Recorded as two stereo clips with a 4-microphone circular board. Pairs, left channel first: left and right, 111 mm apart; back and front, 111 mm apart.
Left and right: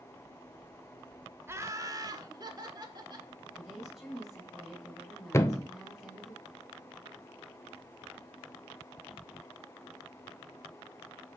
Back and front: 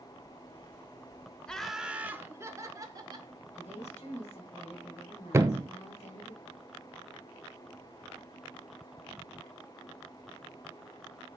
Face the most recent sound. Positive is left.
turn(degrees=45)